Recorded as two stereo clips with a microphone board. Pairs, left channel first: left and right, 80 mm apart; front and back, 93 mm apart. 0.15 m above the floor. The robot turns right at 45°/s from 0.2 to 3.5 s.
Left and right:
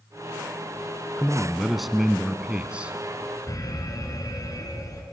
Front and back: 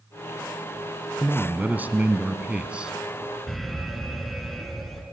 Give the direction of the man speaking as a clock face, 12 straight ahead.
7 o'clock.